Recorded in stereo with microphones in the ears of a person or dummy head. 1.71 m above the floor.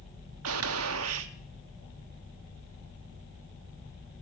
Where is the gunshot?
75° right (ahead or behind), 1.1 m.